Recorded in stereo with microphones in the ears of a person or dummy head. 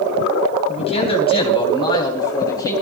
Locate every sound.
0.7 s a man speaking: 40° left (ahead or behind), 3.5 m; by 2.7 s 20° left (ahead or behind), 4 m